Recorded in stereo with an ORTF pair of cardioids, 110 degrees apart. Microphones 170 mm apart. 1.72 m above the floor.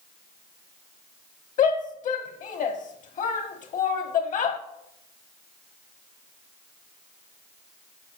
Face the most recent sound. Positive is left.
turn(degrees=50)